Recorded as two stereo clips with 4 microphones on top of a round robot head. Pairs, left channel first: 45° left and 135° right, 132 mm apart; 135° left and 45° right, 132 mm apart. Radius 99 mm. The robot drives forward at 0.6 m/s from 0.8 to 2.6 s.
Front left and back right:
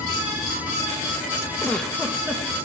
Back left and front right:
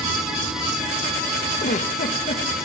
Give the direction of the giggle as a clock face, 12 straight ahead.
8 o'clock.